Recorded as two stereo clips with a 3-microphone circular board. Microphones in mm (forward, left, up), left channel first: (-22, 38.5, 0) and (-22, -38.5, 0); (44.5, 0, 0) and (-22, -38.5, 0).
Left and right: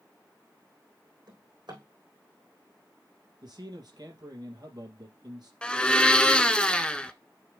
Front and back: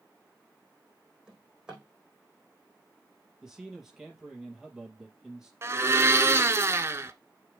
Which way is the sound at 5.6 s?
165° left.